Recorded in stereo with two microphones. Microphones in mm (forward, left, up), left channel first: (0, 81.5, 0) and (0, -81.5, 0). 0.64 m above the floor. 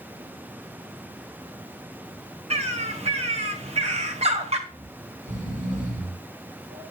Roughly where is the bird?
Right.